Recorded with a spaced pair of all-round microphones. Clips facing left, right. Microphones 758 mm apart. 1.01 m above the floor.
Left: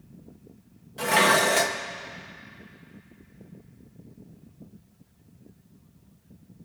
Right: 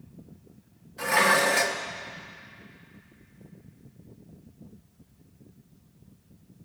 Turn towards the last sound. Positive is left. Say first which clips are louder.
# left 2 dB
turn(degrees=65)  # may be behind; listen again after turning